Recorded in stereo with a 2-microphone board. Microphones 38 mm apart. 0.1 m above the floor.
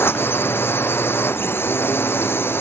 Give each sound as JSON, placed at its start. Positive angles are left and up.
{"t": 0.0, "sound": "a drone", "side_deg": 70}